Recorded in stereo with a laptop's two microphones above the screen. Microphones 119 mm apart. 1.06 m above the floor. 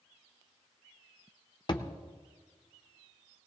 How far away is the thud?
About 0.8 m.